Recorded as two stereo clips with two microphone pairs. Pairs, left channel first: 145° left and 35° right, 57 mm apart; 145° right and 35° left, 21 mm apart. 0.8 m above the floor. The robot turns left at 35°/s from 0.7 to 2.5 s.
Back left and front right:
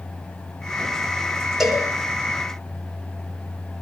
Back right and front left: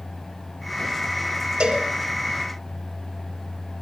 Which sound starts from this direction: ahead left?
A cowbell, at 1.6 s.